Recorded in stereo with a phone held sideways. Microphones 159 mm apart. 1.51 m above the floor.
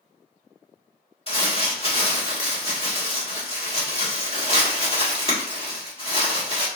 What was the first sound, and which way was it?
Crumpling, 35° left (ahead or behind).